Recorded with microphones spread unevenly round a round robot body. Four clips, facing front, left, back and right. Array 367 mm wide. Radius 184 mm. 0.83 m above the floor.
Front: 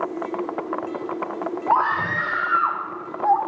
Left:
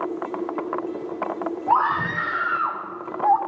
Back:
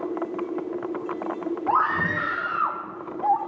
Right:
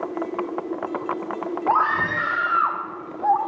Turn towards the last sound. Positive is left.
turn(degrees=140)